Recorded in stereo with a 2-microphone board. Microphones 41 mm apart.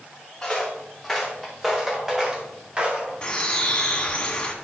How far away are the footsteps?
About 2.5 m.